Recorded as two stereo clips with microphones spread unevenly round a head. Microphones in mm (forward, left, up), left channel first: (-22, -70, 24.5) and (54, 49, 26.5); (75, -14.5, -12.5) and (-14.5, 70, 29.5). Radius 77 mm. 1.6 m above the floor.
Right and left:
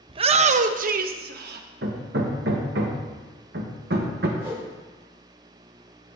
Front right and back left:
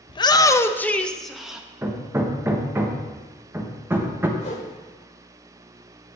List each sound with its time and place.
0.1 s a shout: straight ahead, 0.7 m; by 1.7 s 50° left, 1.1 m
1.8 s hammering: 75° left, 1.2 m
4.4 s a whoosh: 15° right, 4 m